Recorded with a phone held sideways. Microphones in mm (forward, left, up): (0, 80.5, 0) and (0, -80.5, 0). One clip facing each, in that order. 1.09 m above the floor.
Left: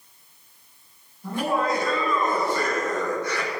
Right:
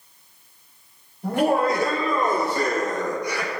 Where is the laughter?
70° right (ahead or behind), 3.5 m; by 3.5 s 5° right (ahead or behind), 2.5 m.